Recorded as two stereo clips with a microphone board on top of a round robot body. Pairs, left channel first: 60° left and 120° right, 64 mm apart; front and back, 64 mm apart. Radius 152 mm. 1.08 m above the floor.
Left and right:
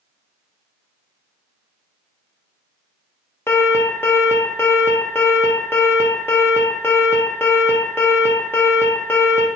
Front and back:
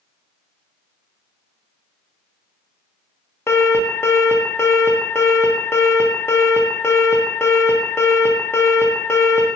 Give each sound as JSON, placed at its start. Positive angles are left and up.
{"t": 3.5, "sound": "an alarm", "azimuth_deg": 25, "distance_m": 1.1}